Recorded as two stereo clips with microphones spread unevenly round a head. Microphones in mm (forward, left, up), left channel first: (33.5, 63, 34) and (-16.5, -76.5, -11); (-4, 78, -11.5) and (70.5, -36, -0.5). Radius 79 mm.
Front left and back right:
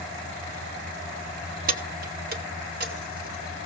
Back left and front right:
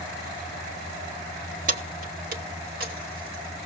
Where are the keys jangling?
75° right, 1.2 m; by 3.6 s 80° right, 3.5 m.